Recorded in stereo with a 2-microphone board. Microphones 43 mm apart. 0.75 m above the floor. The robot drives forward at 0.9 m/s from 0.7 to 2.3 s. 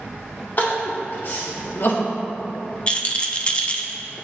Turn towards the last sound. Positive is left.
turn(degrees=25)  # may be behind; listen again after turning